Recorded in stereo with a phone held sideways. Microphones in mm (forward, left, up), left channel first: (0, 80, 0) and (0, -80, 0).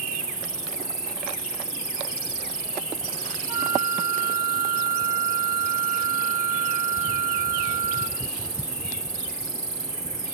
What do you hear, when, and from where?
0.0 s an insect: 5° right (ahead or behind), 4 m
3.5 s a flute: 15° right (ahead or behind), 3 m